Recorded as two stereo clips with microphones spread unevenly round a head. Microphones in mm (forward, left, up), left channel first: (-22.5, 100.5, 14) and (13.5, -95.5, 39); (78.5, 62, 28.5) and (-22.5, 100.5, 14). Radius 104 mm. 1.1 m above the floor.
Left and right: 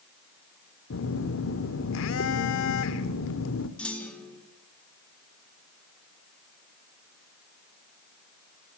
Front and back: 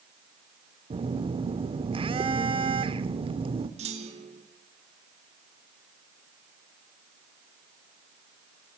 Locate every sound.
0.9 s a phone buzzing: 125° left, 1.3 m
3.8 s a clunk: 175° right, 2.5 m